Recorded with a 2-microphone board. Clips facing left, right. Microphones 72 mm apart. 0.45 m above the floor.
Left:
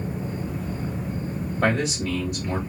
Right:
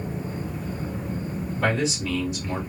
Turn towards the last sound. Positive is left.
turn(degrees=40)  # may be behind; listen again after turning